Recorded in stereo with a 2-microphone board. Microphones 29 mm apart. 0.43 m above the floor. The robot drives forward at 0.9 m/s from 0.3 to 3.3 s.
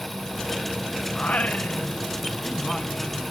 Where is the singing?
70° left (ahead or behind), 0.7 m; by 3.2 s 20° left (ahead or behind), 2 m.